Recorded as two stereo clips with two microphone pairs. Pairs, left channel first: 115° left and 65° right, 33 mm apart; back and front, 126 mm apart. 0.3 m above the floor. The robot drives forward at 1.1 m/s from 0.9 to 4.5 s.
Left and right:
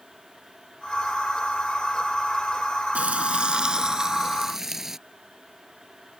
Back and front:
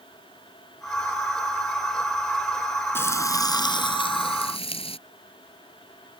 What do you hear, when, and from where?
3.0 s frying: 110° right; by 5.0 s 140° right